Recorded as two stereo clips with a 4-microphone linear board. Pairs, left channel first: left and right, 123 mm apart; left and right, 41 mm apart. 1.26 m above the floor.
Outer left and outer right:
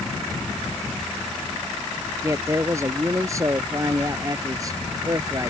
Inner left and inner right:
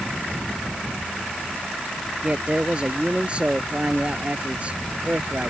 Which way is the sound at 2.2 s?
25° right (ahead or behind).